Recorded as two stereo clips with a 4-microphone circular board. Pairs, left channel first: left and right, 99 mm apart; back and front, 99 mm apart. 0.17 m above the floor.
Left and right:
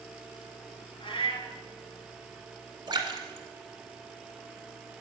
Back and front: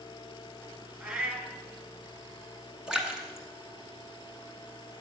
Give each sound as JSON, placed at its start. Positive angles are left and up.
{"t": 1.0, "sound": "a cat meowing", "azimuth_deg": 75, "distance_m": 1.5}
{"t": 2.9, "sound": "a splash", "azimuth_deg": -80, "distance_m": 1.4}